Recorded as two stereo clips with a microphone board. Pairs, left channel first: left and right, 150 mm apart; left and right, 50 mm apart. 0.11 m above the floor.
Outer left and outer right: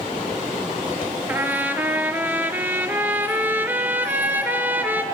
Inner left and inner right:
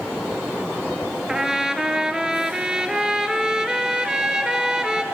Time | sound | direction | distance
1.3 | a trumpet | 15° right (ahead or behind) | 0.6 m